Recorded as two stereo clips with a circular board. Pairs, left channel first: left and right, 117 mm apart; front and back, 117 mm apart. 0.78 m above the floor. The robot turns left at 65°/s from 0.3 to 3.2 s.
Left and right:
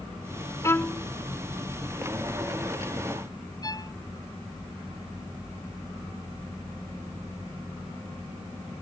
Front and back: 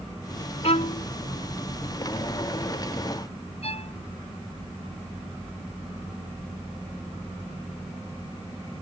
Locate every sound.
0.6 s a violin: 25° left; by 1.1 s straight ahead
3.6 s a violin: 30° left